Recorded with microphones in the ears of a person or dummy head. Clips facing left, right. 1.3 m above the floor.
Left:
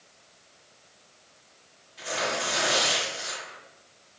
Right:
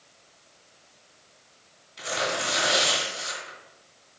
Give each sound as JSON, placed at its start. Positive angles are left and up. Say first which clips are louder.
{"t": 2.0, "sound": "tearing paper", "louder": "right 1 dB", "side_deg": -50, "distance_m": 2.0}